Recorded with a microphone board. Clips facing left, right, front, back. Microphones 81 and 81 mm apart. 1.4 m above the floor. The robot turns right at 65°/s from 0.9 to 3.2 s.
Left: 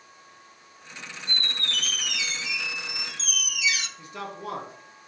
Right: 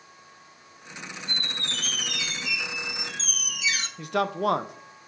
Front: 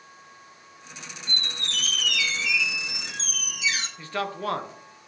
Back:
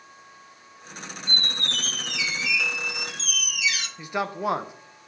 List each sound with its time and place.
1.3 s a squeak: 175° right, 0.6 m; by 3.9 s 50° right, 0.6 m
4.0 s a man speaking: 105° right, 0.5 m